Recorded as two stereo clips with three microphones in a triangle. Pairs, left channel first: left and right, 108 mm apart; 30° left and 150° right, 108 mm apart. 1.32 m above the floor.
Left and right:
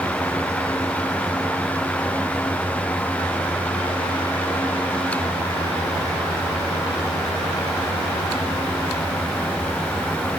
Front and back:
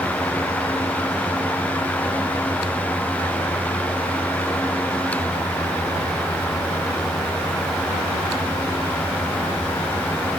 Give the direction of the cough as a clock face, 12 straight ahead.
I don't hear a cough.